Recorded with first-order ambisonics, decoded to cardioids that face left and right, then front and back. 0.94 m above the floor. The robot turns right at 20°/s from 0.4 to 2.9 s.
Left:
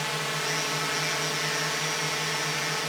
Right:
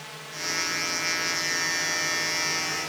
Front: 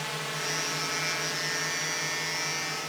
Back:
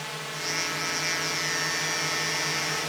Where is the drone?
90° left; by 2.9 s 140° left.